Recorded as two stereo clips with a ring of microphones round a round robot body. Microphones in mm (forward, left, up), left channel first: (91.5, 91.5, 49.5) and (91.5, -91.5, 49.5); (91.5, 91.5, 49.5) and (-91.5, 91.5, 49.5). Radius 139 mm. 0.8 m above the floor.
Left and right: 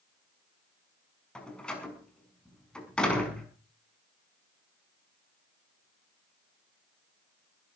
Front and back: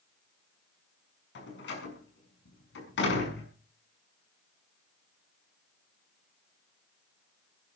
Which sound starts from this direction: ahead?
A door slam, at 1.4 s.